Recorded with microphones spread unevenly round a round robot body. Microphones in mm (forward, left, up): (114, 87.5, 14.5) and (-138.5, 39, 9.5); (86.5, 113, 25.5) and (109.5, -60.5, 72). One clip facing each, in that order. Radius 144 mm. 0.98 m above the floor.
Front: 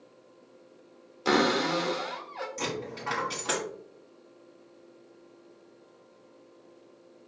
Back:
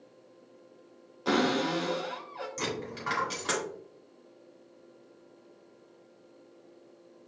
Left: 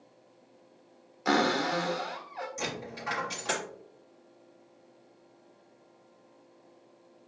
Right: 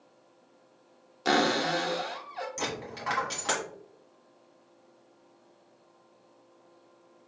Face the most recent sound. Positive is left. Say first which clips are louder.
# even, right 1 dB
turn(degrees=-100)